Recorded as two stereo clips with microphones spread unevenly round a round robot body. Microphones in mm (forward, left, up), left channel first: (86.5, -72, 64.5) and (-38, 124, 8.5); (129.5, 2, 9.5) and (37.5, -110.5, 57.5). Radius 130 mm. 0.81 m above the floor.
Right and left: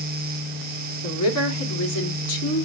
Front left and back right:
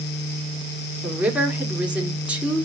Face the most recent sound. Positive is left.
turn(degrees=-40)